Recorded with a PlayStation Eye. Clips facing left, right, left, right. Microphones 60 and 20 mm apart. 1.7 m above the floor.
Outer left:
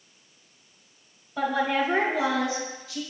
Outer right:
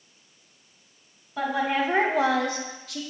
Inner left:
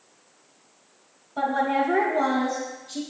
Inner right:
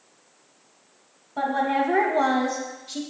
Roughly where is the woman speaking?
Centre.